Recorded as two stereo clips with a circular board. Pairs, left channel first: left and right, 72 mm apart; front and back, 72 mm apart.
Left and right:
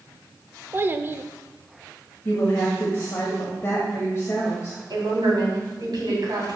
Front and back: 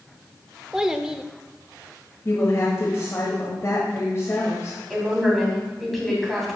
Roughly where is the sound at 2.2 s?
Ahead left.